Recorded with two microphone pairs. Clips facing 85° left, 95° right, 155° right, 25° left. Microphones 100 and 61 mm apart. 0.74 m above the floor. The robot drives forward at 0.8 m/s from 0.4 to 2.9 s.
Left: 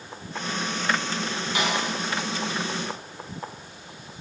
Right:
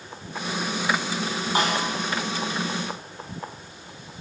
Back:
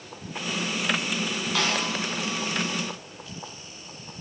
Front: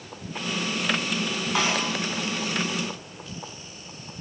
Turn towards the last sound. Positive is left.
turn(degrees=-50)